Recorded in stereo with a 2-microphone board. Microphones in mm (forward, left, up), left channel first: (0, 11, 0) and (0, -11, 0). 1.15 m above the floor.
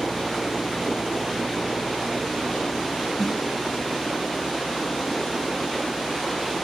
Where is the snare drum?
10° right (ahead or behind), 1.5 m.